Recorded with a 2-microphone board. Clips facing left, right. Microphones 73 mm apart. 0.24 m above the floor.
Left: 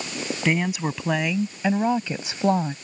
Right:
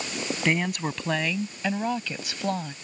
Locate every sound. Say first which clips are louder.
0.5 s a woman speaking: left 3 dB; centre (ahead or behind); by 2.8 s 30° left (ahead or behind)